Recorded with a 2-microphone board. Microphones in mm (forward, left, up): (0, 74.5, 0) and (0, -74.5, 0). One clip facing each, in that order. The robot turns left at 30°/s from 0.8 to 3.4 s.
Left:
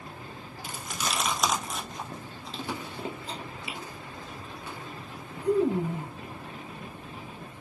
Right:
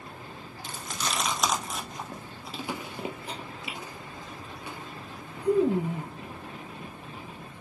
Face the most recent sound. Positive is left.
turn(degrees=-15)  # may be behind; listen again after turning